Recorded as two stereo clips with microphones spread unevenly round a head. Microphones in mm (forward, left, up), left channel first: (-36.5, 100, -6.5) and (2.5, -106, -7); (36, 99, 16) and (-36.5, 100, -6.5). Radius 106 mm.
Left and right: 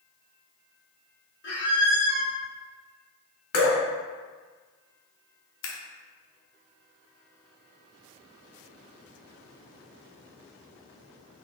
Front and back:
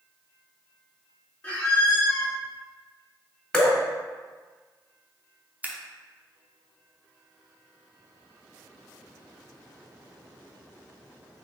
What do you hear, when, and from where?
1.4 s a squeak: 60° left, 1.4 m
3.5 s dripping: 75° left, 1.4 m
5.6 s scissors: 120° left, 0.9 m